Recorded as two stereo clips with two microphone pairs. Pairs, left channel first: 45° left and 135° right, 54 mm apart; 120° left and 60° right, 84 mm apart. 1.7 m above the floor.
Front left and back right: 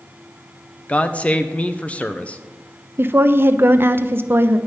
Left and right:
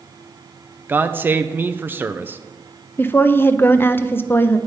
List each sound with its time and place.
0.9 s a man speaking: 10° right, 0.5 m
3.0 s a woman speaking: 175° right, 0.5 m